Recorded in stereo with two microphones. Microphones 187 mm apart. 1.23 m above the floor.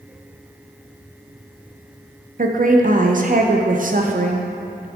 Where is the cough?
I don't hear a cough.